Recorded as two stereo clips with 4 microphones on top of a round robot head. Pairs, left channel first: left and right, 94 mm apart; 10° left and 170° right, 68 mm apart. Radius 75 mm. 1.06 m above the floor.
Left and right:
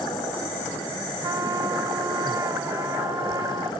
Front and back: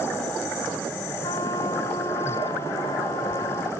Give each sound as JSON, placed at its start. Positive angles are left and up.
{"t": 1.2, "sound": "a trumpet", "azimuth_deg": -35}